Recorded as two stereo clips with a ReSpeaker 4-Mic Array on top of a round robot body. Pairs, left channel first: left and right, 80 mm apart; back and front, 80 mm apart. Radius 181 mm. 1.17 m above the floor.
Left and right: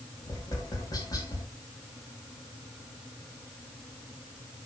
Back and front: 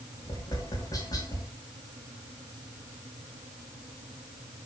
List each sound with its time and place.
0.2 s tapping: 135° left, 1.8 m